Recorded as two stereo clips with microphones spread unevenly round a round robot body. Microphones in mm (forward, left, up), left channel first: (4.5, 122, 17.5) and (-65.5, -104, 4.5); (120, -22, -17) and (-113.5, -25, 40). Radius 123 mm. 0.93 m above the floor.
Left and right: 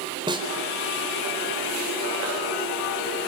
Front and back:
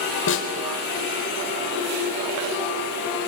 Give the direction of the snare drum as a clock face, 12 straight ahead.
1 o'clock.